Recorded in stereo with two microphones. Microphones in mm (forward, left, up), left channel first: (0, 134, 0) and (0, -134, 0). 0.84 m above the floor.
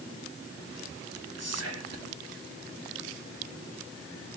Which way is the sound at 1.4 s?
70° right (ahead or behind).